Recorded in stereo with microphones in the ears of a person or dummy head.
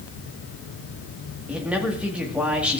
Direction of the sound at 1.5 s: 5° right (ahead or behind).